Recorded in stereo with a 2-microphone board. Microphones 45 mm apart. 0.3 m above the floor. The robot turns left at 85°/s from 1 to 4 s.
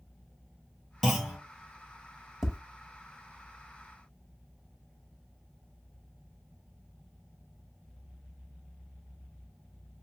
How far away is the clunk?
About 1.8 m.